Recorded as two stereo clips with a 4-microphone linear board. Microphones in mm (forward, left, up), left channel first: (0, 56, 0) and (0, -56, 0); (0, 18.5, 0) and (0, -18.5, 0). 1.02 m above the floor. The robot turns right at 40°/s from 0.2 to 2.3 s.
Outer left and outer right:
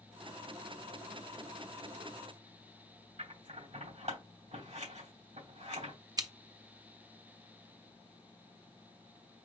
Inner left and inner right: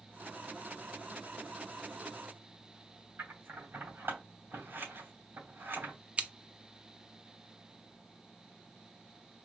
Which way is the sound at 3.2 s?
80° right.